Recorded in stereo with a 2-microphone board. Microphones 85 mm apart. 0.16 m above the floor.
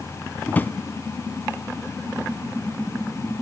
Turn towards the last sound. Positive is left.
turn(degrees=20)  # may be behind; listen again after turning